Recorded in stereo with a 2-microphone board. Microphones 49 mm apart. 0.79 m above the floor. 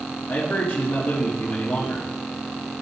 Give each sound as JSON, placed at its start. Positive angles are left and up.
{"t": 0.3, "sound": "a man speaking", "side_deg": 40, "distance_m": 1.3}